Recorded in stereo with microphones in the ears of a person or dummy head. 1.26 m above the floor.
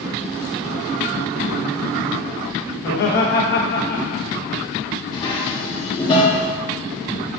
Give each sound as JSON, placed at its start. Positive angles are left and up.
{"t": 2.8, "sound": "laughter", "side_deg": 50, "distance_m": 1.4}
{"t": 5.1, "sound": "dishes clattering", "side_deg": 20, "distance_m": 1.6}